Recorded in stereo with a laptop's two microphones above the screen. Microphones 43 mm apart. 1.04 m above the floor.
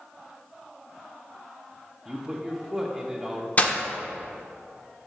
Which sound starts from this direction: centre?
A man speaking, at 2.0 s.